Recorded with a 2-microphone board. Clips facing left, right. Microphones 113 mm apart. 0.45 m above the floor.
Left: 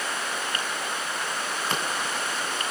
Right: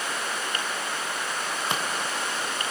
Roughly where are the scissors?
Centre.